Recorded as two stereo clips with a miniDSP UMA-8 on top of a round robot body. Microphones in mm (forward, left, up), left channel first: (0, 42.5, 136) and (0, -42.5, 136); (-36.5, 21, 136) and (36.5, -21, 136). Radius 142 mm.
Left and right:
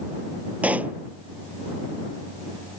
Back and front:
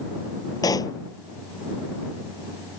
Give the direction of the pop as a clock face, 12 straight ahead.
5 o'clock.